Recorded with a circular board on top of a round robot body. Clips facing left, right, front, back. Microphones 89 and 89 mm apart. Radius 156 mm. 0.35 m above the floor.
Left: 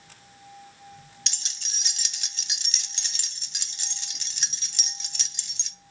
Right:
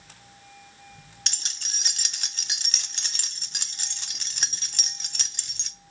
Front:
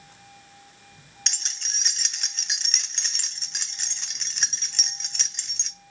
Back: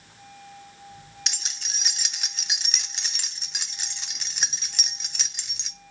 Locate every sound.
1.3 s keys jangling: 95° right, 0.6 m